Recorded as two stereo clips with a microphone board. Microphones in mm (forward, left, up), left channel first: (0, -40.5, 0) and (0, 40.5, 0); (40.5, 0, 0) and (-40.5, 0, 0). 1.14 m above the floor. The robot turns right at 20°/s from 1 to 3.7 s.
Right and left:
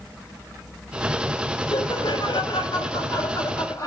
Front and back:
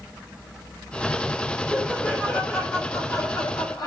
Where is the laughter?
75° right, 4 m; by 3.9 s 35° right, 4 m.